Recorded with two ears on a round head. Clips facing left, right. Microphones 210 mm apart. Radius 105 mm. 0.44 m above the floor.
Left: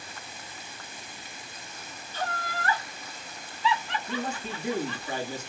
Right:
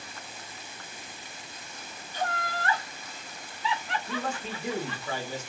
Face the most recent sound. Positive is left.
turn(degrees=-65)  # may be behind; listen again after turning